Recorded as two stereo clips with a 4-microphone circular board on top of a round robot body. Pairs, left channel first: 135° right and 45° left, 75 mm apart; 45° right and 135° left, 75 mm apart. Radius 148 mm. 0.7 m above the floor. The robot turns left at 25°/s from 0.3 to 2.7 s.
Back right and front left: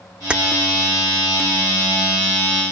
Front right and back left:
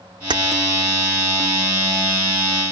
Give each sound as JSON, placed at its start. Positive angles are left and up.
{"t": 0.3, "sound": "keys jangling", "azimuth_deg": 120, "distance_m": 1.2}